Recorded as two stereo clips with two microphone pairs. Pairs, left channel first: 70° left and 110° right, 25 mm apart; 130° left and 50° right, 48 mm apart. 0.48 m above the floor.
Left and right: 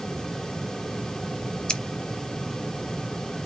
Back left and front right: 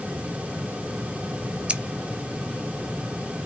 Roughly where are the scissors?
Ahead.